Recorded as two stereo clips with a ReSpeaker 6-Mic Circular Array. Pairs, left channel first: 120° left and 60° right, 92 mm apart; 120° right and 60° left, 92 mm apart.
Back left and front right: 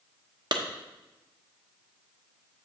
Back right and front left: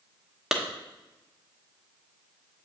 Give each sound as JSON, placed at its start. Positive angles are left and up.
{"t": 0.5, "sound": "a clap", "azimuth_deg": -25, "distance_m": 0.8}